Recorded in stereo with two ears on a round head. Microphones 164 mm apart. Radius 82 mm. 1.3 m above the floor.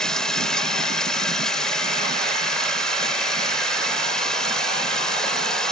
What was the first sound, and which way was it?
Running water, 5° left (ahead or behind).